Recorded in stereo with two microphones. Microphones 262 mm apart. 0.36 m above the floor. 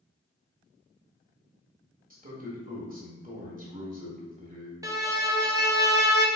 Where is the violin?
15° right (ahead or behind), 0.6 m.